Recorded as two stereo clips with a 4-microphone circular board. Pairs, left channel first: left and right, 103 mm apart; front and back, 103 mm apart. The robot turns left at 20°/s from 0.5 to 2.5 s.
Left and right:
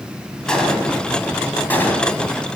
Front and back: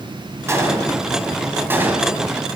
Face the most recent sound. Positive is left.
turn(degrees=125)